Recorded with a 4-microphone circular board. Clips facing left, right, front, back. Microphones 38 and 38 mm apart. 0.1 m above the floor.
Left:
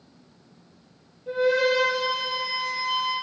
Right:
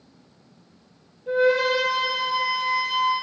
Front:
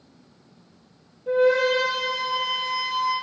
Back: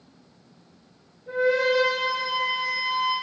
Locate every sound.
1.3 s a flute: 5° right, 2.5 m